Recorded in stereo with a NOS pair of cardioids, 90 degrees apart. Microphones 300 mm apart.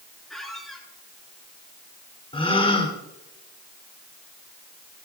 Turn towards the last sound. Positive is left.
turn(degrees=20)